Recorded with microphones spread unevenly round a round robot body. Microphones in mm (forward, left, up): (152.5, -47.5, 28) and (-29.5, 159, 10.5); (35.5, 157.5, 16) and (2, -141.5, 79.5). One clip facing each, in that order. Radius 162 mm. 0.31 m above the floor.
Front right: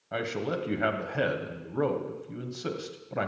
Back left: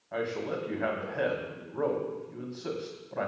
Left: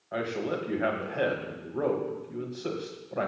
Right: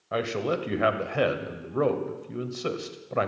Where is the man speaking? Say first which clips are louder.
Front right 1 dB, right 3 dB; 90° right, 1.5 m.